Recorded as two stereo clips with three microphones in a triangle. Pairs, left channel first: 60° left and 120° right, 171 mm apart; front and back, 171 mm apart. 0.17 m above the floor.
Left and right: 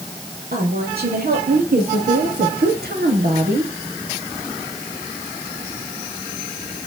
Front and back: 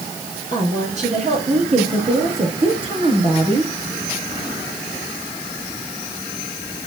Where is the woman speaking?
140° right, 5.5 m; by 3.7 s 115° right, 3.5 m.